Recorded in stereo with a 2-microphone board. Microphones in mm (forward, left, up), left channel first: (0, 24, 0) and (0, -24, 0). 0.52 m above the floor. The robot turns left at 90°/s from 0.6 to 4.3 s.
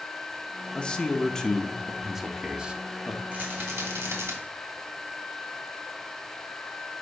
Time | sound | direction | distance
0.8 | a man speaking | 20° left (ahead or behind) | 0.8 m
3.3 | a rattle | 30° right | 2.5 m